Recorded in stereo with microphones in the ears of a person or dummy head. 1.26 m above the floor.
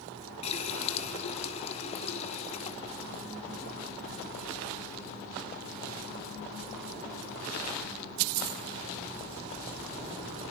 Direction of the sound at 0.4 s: 35° left (ahead or behind).